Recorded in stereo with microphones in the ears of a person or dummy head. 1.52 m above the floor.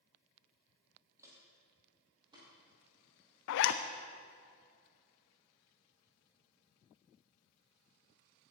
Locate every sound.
1.2 s footsteps: 15° right (ahead or behind), 3 m; by 3.4 s 30° right (ahead or behind), 4 m
3.5 s a zipper: 65° left (ahead or behind), 0.6 m